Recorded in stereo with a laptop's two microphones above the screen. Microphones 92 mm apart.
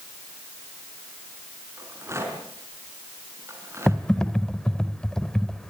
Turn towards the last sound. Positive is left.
turn(degrees=5)  # may be behind; listen again after turning